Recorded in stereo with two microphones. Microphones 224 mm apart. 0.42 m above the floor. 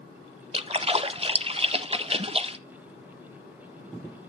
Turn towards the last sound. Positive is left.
turn(degrees=-25)  # may be behind; listen again after turning